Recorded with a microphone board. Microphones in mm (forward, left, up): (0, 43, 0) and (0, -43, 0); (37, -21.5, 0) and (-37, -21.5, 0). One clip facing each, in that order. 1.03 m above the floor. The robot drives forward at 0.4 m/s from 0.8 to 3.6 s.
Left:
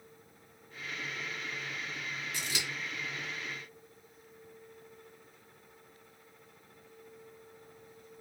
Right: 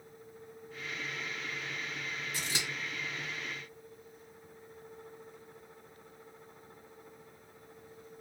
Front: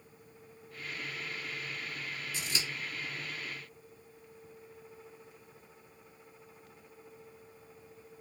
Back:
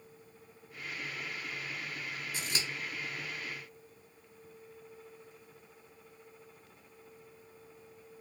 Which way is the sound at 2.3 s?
145° right.